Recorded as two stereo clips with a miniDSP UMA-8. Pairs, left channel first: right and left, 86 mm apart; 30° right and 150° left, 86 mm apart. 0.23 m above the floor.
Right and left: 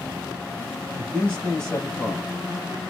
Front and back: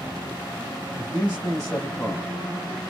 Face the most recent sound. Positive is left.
turn(degrees=-10)